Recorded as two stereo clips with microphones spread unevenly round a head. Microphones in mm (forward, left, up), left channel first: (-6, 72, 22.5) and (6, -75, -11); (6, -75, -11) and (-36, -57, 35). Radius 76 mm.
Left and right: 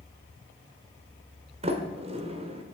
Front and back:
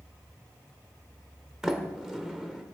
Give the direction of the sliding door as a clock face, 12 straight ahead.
5 o'clock.